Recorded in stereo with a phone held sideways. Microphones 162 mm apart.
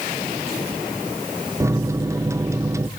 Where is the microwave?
20° right (ahead or behind), 0.7 m.